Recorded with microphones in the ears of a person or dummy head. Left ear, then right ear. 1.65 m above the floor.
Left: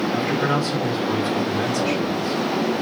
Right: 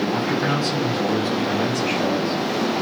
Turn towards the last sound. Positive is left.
turn(degrees=40)  # may be behind; listen again after turning